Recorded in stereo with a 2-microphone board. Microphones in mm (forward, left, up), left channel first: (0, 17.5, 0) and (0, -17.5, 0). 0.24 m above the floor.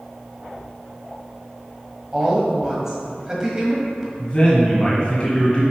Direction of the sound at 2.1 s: 15° right (ahead or behind).